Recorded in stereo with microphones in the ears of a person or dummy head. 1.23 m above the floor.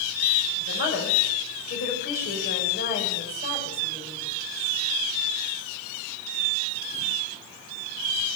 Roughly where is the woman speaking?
Left.